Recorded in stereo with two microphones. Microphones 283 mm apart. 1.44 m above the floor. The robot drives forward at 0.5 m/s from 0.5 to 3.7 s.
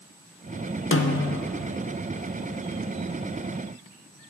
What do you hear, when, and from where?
0.9 s a snare drum: 45° left (ahead or behind), 0.6 m; by 1.4 s 60° left (ahead or behind), 0.5 m